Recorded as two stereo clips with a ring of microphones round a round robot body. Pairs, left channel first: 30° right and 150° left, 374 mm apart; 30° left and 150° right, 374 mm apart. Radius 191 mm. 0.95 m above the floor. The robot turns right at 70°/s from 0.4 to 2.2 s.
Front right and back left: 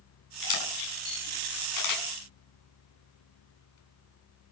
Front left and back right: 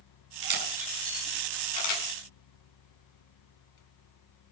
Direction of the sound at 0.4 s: 90° right.